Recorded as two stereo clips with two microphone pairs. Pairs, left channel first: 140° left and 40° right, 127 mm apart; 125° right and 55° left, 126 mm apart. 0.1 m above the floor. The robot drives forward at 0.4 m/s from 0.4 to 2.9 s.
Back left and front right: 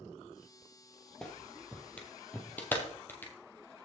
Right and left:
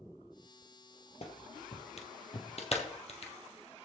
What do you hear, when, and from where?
1.2 s a clap: 135° right, 1.9 m; by 3.3 s 150° right, 2.5 m